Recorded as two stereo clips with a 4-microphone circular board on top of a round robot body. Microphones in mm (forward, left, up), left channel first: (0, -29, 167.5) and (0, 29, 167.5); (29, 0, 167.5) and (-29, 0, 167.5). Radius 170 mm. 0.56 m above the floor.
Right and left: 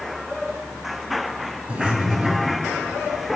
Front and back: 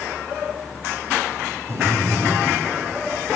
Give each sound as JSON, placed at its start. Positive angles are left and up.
{"t": 1.7, "sound": "breathing", "azimuth_deg": 155, "distance_m": 2.5}